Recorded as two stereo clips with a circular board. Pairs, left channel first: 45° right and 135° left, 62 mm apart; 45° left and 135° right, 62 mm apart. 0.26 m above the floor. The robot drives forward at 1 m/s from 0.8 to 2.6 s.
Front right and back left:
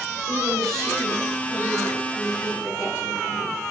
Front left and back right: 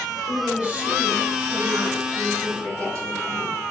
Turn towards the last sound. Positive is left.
turn(degrees=-170)